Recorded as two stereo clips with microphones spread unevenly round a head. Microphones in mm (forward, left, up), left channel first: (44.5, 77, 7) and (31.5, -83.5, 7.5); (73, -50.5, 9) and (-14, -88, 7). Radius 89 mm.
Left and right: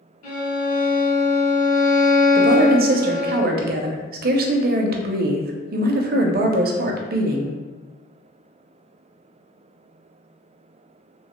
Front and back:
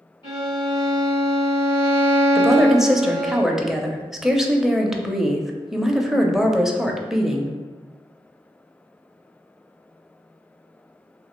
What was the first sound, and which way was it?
A violin, 70° left.